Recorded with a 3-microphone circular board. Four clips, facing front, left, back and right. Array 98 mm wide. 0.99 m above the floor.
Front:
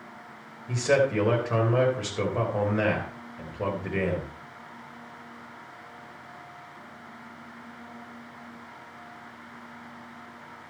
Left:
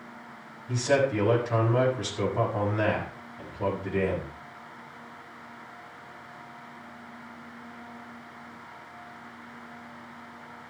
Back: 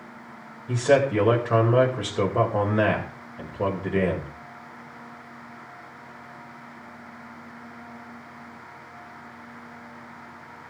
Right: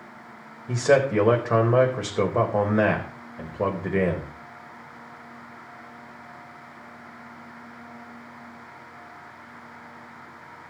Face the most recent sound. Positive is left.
turn(degrees=-110)